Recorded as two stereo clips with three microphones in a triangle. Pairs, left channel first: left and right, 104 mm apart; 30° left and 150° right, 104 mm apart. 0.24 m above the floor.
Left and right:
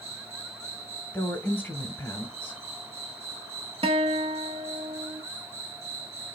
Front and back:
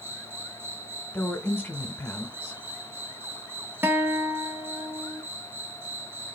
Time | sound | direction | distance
0.0 | an insect | 80° right | 0.9 m
1.1 | a woman speaking | 55° left | 1.2 m
3.8 | a guitar | 80° right | 0.7 m